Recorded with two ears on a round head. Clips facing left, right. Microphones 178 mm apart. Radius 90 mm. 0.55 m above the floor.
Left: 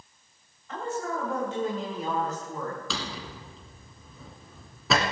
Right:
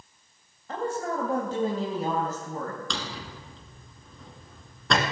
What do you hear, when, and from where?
0.7 s a woman speaking: 35° right (ahead or behind), 2.5 m; by 2.8 s 30° right (ahead or behind), 4 m
2.9 s a drawer: 5° left (ahead or behind), 2 m